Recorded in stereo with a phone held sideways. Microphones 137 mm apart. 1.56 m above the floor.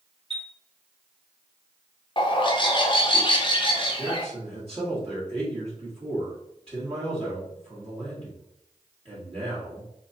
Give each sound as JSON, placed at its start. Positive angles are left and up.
{"t": 0.3, "sound": "a chime", "side_deg": -45, "distance_m": 0.9}
{"t": 2.2, "sound": "a bird", "side_deg": 40, "distance_m": 0.7}
{"t": 4.0, "sound": "a man speaking", "side_deg": -40, "distance_m": 1.3}